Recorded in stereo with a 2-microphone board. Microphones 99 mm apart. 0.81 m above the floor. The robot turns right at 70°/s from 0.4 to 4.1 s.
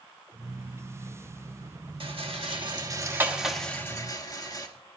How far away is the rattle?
About 1.3 m.